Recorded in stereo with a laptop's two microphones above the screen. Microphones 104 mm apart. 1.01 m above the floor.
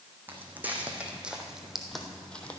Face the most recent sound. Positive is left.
turn(degrees=15)  # may be behind; listen again after turning